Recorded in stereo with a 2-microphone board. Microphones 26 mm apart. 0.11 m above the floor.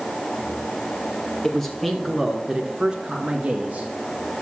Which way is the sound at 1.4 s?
15° left (ahead or behind).